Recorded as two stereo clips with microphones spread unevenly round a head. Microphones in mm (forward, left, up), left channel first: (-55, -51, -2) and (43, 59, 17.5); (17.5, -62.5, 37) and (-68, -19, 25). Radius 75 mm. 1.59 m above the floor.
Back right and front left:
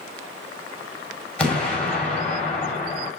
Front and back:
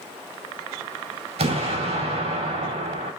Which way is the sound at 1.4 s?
145° left.